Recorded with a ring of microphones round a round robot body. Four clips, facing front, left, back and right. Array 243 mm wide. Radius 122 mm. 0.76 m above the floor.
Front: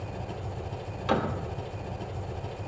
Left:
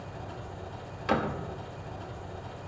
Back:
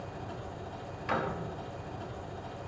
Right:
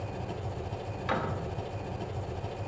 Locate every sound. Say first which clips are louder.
0.0 s an engine running: right 4 dB, front 3 dB; 45° right, 1.1 m
1.1 s a door slam: left 4 dB, front 5 dB; 40° left, 1.1 m